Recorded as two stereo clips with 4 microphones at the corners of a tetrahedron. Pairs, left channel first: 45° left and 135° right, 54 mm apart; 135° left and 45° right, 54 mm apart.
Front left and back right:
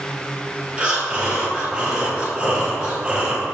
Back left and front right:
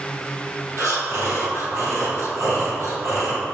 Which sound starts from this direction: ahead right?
Breathing, at 0.8 s.